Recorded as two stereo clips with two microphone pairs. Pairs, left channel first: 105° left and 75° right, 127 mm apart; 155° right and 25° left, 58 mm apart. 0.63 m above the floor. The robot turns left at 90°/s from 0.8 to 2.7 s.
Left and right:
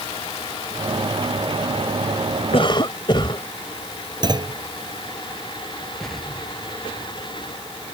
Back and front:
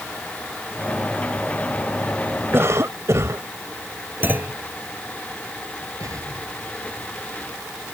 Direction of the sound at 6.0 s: 15° left.